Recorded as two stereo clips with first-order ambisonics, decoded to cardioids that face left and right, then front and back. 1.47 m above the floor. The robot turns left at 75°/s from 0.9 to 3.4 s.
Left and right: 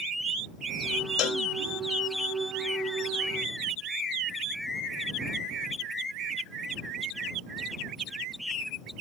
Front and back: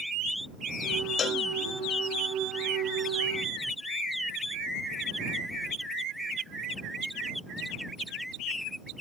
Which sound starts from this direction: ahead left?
A cowbell, at 1.2 s.